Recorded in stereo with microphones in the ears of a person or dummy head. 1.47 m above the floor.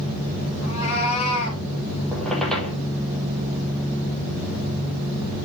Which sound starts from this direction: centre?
A squeak, at 2.1 s.